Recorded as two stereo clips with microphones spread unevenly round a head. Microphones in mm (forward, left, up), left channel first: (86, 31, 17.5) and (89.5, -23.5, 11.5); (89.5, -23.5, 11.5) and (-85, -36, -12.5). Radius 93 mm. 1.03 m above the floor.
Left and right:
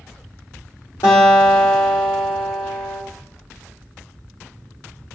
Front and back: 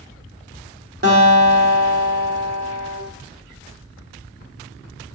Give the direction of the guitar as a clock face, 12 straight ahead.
7 o'clock.